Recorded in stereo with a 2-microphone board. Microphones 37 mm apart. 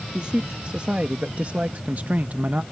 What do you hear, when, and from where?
0.1 s a man speaking: 30° right (ahead or behind); by 2.6 s 45° right (ahead or behind)